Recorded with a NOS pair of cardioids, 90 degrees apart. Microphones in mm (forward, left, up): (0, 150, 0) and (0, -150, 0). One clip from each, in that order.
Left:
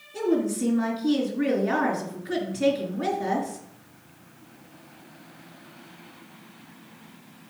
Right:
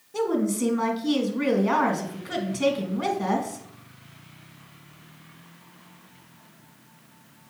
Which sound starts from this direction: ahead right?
A woman speaking, at 0.1 s.